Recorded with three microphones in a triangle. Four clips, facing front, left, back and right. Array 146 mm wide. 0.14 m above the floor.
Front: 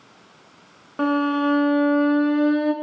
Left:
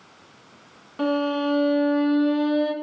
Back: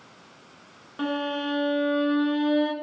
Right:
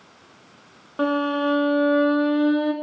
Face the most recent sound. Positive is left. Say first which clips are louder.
# right 1 dB, front 8 dB
turn(degrees=-45)